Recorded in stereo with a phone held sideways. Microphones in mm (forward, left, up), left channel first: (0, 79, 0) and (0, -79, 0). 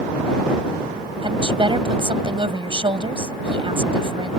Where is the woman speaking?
35° right (ahead or behind).